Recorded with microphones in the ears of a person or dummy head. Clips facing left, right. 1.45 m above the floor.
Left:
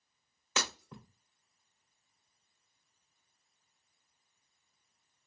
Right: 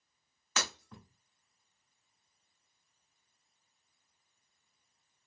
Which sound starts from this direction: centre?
Breaking glass, at 0.6 s.